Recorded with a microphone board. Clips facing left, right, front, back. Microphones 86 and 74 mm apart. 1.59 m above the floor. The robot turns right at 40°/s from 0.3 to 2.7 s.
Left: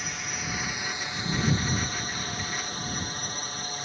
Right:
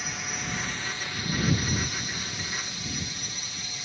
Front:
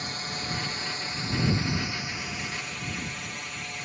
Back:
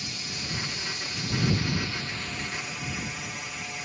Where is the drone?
Straight ahead; by 3.9 s 95° left.